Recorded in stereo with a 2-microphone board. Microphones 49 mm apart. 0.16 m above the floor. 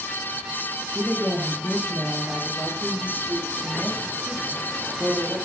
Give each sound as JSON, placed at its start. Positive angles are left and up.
{"t": 0.9, "sound": "a woman speaking", "side_deg": -30, "distance_m": 5.5}